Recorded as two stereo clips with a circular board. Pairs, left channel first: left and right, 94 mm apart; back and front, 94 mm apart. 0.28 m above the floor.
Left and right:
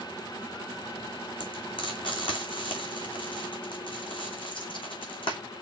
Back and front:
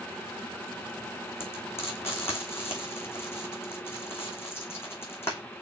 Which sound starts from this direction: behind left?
Frying, at 1.4 s.